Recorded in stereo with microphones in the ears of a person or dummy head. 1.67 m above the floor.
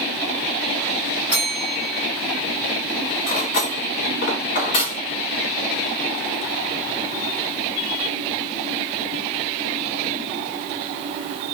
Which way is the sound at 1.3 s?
10° right (ahead or behind).